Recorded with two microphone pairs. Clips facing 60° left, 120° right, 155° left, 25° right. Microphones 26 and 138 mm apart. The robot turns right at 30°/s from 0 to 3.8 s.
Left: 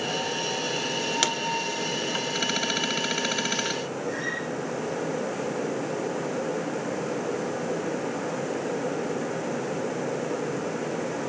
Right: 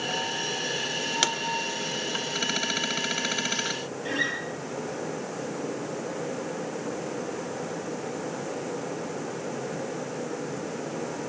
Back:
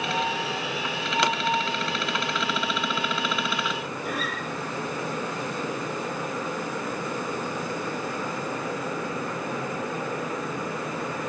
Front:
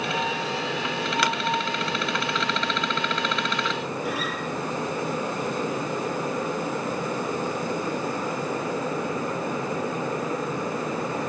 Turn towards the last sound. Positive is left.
turn(degrees=-110)